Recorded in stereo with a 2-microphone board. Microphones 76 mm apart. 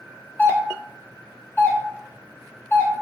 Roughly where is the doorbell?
Left.